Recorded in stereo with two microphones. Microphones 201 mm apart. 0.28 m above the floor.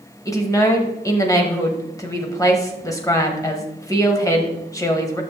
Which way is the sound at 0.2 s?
15° left (ahead or behind).